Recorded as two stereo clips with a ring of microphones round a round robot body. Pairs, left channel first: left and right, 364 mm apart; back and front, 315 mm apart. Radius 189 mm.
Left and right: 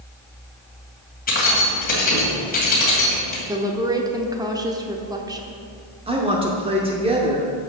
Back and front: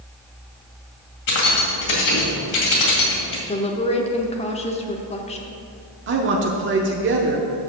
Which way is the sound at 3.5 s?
150° right.